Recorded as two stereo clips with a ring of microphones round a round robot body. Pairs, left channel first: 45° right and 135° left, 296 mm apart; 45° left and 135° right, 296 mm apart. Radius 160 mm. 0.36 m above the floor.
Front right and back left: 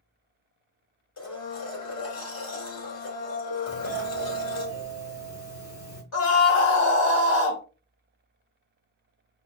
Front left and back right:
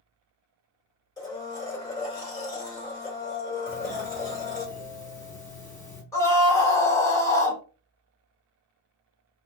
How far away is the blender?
About 2 m.